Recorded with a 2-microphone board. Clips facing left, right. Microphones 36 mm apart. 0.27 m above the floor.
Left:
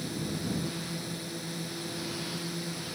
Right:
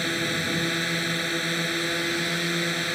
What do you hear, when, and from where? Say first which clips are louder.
0.0 s a drone: right 9 dB; 65° right (ahead or behind)